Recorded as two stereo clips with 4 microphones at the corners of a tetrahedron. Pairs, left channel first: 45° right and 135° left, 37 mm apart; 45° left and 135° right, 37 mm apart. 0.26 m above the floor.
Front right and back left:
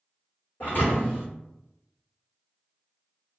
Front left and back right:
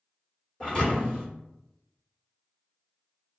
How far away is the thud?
About 1.6 m.